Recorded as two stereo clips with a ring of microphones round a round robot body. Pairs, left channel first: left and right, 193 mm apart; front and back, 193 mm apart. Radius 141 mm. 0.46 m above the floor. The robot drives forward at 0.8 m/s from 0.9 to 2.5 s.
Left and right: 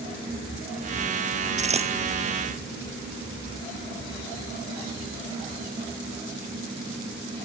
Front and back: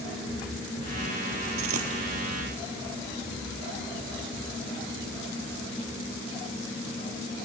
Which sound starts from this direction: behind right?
A dropped coin, at 1.6 s.